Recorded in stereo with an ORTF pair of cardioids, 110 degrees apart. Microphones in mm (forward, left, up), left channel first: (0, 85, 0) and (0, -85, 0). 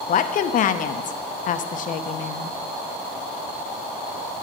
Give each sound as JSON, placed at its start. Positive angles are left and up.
{"t": 0.1, "sound": "a woman speaking", "azimuth_deg": 50, "distance_m": 0.8}